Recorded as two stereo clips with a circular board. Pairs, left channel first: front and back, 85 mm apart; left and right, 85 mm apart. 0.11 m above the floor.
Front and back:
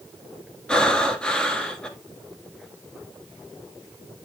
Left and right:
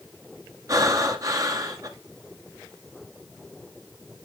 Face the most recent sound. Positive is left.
turn(degrees=-75)